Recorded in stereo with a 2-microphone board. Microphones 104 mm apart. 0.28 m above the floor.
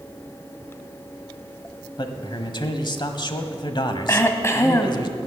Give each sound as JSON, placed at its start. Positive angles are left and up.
{"t": 2.0, "sound": "a man speaking", "side_deg": 45, "distance_m": 1.2}
{"t": 4.1, "sound": "throat clearing", "side_deg": 25, "distance_m": 1.0}